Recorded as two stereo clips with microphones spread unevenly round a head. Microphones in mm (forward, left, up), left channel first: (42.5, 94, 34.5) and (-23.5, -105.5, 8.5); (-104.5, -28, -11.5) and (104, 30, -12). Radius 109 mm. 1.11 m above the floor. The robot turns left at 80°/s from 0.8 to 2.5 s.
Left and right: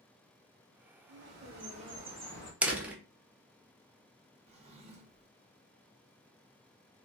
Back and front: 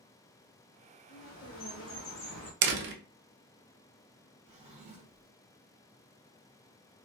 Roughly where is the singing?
No singing in this recording.